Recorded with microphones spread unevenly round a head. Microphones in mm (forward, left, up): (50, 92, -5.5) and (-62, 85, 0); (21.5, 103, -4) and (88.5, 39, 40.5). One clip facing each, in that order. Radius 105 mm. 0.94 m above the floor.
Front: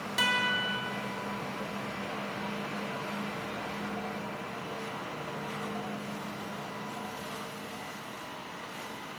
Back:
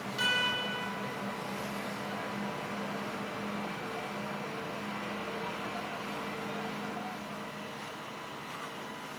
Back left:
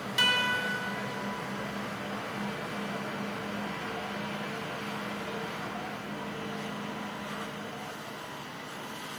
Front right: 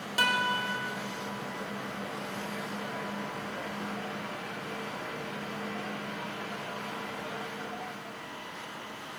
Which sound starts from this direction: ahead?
A guitar, at 0.2 s.